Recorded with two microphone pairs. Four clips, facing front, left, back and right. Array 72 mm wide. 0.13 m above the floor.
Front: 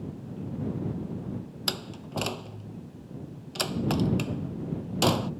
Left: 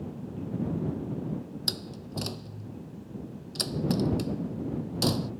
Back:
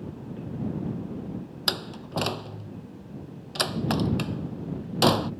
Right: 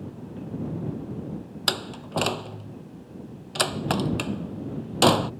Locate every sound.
1.7 s a door slam: 105° right